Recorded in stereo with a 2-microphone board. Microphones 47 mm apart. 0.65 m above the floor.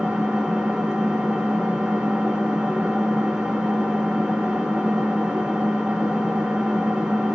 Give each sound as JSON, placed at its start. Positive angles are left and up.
{"t": 0.0, "sound": "an engine running", "side_deg": -15, "distance_m": 0.9}